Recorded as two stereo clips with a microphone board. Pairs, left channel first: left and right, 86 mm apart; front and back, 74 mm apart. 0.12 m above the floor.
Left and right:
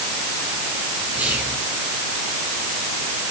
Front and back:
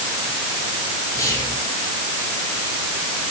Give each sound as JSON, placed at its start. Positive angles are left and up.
{"t": 1.1, "sound": "whispering", "azimuth_deg": -25, "distance_m": 2.0}